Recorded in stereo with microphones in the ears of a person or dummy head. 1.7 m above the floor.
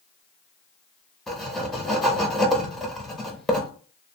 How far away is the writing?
About 0.5 m.